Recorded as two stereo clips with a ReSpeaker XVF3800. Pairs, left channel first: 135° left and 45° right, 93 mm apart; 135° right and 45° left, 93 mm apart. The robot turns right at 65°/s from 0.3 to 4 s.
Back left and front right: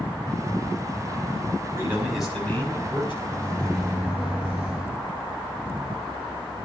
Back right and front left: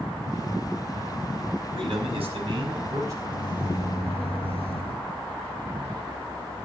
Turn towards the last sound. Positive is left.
turn(degrees=-125)